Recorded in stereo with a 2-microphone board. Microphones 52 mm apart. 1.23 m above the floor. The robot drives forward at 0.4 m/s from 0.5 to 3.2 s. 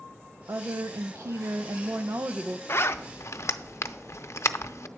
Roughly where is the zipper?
Left.